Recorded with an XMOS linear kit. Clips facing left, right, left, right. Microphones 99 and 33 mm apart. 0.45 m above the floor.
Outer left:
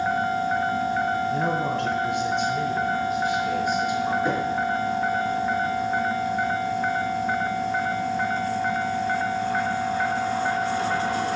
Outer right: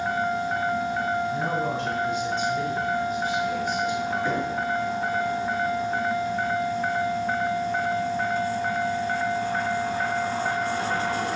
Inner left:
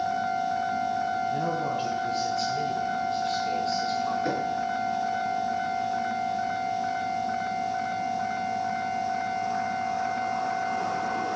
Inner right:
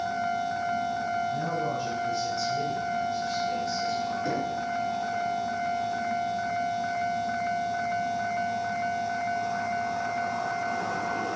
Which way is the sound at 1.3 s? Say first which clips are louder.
Outer left 2 dB, inner left 1 dB; 65° left (ahead or behind).